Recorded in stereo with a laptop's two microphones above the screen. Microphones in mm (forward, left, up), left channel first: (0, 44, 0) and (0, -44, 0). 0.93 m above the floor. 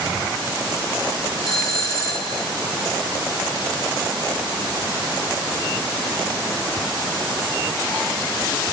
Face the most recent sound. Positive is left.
turn(degrees=40)  # may be behind; listen again after turning